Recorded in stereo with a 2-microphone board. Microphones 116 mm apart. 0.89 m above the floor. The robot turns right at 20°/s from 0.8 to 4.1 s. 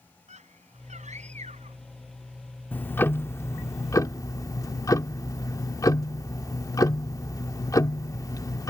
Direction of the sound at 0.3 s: 80° right.